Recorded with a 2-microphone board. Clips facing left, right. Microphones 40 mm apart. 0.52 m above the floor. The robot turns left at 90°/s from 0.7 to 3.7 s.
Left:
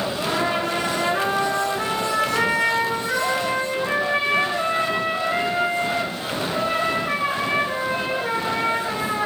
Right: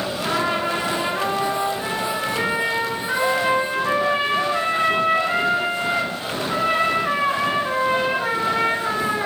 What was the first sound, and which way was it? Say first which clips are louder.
A trumpet: right 2 dB; 155° right.